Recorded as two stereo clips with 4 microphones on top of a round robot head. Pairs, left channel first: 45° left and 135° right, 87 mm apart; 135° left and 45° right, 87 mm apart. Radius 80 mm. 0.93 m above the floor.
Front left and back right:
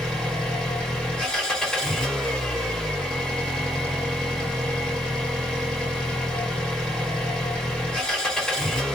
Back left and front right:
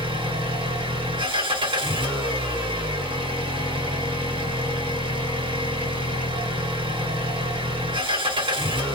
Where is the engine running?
35° right, 1.3 m.